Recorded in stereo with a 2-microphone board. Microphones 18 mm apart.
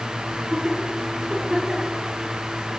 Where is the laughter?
50° right (ahead or behind), 7 m; by 2.0 s 40° right (ahead or behind), 8 m.